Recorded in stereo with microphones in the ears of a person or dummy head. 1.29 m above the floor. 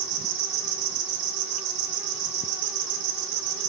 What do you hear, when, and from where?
0.0 s an insect: 70° right (ahead or behind), 1.6 m